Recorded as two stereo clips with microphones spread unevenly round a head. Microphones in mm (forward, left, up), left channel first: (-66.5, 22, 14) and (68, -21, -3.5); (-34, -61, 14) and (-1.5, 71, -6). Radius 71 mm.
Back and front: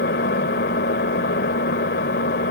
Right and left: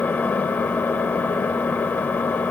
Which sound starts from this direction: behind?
An engine running, at 0.0 s.